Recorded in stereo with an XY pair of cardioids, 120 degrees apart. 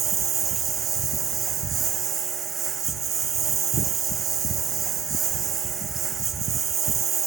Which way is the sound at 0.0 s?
45° right.